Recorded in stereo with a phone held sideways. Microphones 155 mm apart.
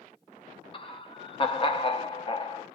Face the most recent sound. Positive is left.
turn(degrees=35)  # may be behind; listen again after turning